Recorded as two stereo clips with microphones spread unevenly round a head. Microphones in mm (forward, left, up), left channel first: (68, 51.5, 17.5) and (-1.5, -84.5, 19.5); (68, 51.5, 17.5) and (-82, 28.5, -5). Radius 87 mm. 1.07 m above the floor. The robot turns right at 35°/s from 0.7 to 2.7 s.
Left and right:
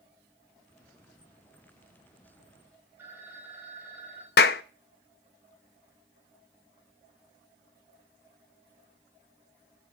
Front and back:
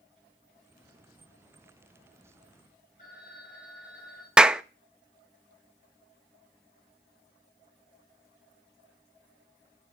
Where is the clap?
100° left, 0.5 m.